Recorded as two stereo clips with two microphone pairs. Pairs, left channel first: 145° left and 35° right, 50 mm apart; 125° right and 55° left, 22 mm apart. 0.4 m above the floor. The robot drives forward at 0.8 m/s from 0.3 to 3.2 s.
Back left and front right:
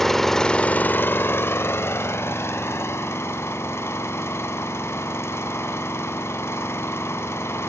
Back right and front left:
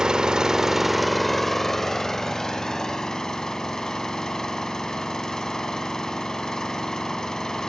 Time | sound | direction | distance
0.0 | an engine running | 65° left | 0.7 m